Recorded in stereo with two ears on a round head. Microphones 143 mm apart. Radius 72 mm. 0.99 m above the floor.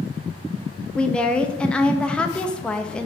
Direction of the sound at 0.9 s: 5° left (ahead or behind).